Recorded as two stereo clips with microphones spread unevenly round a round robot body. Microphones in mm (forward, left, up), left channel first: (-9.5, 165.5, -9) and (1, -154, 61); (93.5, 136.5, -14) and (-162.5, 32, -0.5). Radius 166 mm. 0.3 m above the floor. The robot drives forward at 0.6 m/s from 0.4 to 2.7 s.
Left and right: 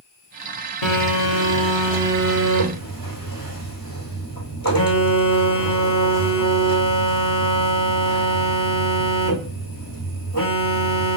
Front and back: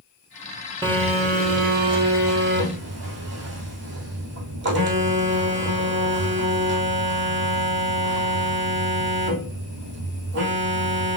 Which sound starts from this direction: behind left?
A phone buzzing, at 0.8 s.